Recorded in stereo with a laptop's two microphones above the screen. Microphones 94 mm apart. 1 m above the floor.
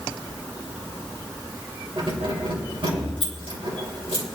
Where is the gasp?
I don't hear a gasp.